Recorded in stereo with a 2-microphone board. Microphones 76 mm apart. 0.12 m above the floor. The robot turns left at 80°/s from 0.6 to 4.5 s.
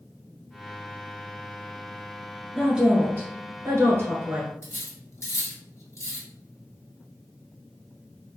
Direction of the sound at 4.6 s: 40° left (ahead or behind).